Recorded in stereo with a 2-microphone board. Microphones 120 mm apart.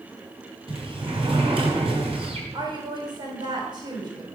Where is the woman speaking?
35° right (ahead or behind), 3.5 m.